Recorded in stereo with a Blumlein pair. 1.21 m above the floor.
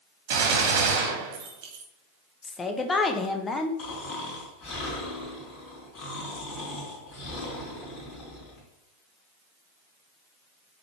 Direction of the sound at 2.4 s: 15° left.